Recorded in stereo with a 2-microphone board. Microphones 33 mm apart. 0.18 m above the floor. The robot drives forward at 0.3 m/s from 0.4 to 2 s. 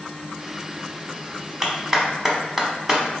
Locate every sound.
1.6 s a clap: 15° right (ahead or behind), 0.8 m